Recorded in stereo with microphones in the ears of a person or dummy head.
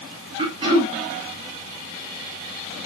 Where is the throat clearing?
25° right (ahead or behind), 3.5 m.